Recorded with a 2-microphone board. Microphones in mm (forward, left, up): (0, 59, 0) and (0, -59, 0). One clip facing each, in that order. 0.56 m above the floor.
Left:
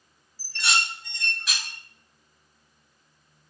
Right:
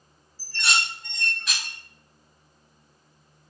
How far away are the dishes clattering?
About 0.6 m.